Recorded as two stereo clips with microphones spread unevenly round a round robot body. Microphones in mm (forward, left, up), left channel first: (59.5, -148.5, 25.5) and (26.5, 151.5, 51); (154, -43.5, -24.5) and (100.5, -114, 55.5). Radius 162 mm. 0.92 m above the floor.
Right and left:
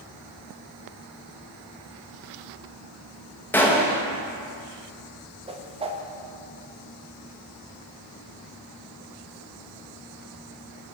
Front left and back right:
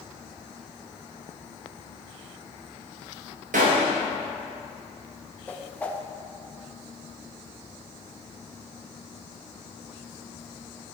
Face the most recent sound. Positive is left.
turn(degrees=25)